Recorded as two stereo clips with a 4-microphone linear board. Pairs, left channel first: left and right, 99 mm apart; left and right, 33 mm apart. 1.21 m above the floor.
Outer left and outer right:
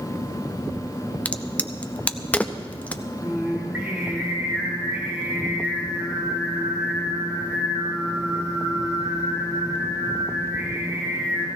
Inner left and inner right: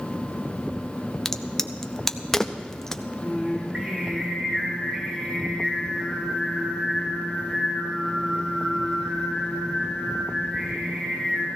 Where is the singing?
20° right (ahead or behind), 4 m.